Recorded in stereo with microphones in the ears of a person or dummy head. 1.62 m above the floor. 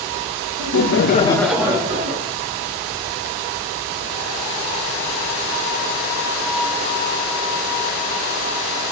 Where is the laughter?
80° left, 0.9 m; by 2.4 s 35° right (ahead or behind), 1.3 m.